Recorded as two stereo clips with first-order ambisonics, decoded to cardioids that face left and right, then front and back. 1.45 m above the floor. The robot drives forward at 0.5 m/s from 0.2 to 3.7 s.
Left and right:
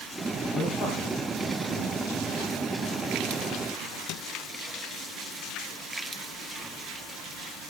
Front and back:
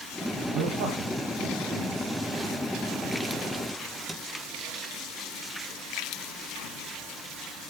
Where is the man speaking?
155° left, 3.5 m; by 2.2 s 160° left, 4 m.